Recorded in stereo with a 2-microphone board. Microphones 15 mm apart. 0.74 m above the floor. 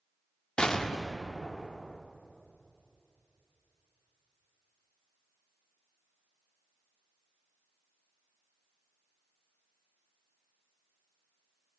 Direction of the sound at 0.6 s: 70° left (ahead or behind).